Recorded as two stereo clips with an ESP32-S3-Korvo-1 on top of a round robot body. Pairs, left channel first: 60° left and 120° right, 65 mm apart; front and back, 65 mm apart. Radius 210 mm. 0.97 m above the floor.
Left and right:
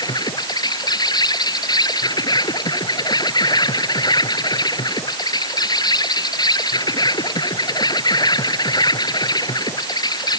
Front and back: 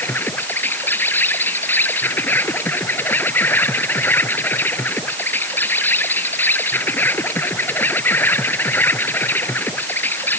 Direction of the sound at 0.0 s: 60° left.